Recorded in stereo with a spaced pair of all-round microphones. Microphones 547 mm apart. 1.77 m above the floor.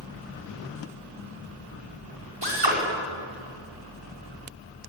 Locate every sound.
2.4 s a drill: 55° right (ahead or behind), 6 m